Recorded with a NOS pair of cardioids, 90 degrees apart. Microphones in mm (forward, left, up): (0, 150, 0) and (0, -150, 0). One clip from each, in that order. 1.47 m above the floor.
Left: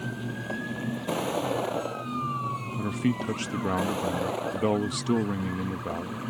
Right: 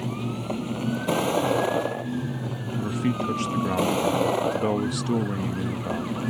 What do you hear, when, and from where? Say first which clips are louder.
0.0 s a vehicle: right 3 dB; 35° right; by 6.3 s 55° right
2.8 s a man speaking: right 5 dB; straight ahead